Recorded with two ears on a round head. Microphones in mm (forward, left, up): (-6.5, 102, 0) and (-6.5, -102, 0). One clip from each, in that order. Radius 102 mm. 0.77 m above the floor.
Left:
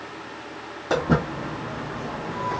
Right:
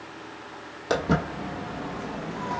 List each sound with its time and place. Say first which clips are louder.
0.9 s footsteps: left 2 dB; 45° right (ahead or behind), 1.6 m; by 2.6 s 15° right (ahead or behind), 1.2 m